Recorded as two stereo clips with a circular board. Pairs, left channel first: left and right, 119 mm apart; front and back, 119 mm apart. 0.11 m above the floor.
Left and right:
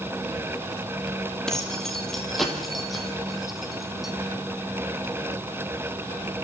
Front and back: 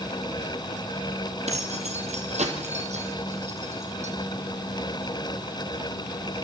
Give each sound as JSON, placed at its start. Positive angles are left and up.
{"t": 1.5, "sound": "keys jangling", "azimuth_deg": 175, "distance_m": 2.5}